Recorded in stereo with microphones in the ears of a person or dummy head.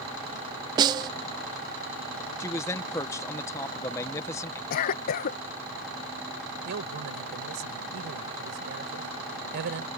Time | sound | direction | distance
0.8 | a snare drum | 25° right (ahead or behind) | ?
2.4 | a man speaking | 15° left (ahead or behind) | ?
4.7 | a cough | 55° left (ahead or behind) | ?
6.7 | a man speaking | 65° right (ahead or behind) | ?